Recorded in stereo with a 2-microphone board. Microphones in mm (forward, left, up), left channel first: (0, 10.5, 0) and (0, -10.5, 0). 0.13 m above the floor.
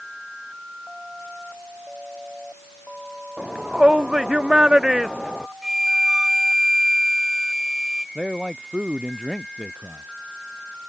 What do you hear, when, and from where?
3.4 s a shout: 50° right (ahead or behind); by 5.5 s 30° right (ahead or behind)
5.6 s a flute: 20° right (ahead or behind)
8.2 s a man speaking: 30° right (ahead or behind)